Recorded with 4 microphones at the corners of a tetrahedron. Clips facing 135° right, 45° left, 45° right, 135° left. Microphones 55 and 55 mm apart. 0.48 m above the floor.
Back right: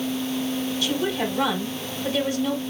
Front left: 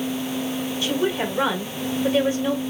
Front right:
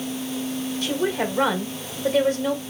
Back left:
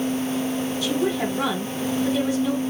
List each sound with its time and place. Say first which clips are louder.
0.8 s a woman speaking: front left 4 dB, even; 15° right, 1.6 m